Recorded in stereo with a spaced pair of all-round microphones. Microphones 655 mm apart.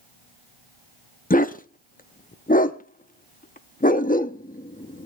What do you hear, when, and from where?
1.3 s a dog barking: 15° left (ahead or behind), 0.5 m